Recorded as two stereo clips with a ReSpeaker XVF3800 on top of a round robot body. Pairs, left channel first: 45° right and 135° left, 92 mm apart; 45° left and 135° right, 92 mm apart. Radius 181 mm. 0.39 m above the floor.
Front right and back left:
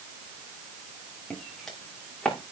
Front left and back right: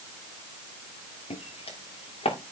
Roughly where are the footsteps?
Ahead left.